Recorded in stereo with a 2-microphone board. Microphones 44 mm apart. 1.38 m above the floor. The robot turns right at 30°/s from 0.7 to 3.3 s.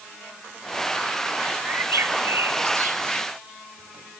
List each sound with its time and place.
1.7 s a bird: 65° right (ahead or behind), 1.0 m; by 3.2 s 55° right (ahead or behind), 1.0 m